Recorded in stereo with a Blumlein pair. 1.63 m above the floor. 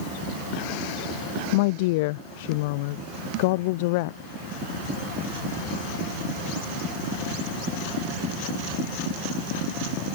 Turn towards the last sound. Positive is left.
turn(degrees=50)